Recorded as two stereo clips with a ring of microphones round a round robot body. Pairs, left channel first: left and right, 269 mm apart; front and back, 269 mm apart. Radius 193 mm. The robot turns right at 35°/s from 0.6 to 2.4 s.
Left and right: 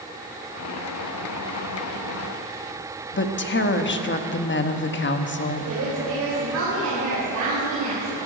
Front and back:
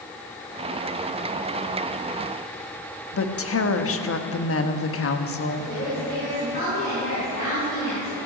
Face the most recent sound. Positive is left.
turn(degrees=-65)